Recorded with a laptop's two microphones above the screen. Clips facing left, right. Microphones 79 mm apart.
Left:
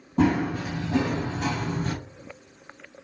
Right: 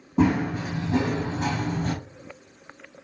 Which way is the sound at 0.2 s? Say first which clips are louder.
Even; 10° right (ahead or behind).